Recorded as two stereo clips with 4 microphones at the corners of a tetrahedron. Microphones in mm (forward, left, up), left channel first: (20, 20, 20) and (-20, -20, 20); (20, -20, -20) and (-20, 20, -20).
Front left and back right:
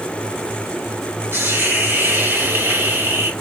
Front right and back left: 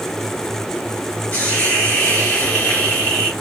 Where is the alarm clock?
No alarm clock in this recording.